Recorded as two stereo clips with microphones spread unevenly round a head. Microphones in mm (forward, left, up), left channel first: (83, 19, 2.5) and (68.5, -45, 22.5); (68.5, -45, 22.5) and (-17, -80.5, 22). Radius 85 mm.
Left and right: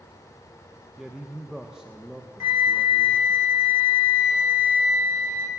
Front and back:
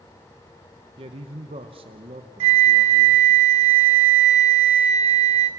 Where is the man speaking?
165° left, 1.0 m.